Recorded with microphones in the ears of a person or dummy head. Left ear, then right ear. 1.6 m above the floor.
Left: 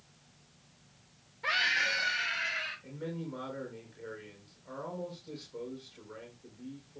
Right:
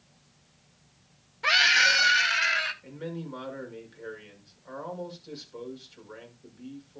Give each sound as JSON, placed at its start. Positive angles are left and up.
{"t": 1.4, "sound": "a scream", "side_deg": -35, "distance_m": 1.2}
{"t": 2.8, "sound": "a man speaking", "side_deg": -30, "distance_m": 5.5}